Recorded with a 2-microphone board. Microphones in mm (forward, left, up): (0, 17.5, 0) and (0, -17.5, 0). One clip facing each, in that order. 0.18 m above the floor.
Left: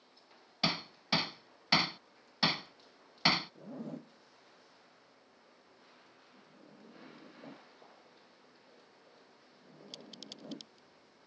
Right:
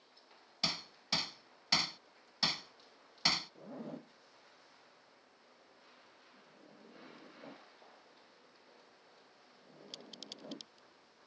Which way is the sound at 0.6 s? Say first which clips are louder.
Left 5 dB; 20° left (ahead or behind).